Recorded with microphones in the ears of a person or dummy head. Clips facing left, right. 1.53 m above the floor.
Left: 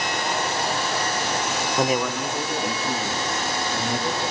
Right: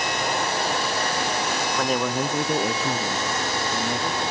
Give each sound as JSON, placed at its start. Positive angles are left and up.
{"t": 1.8, "sound": "a man speaking", "side_deg": 25, "distance_m": 0.5}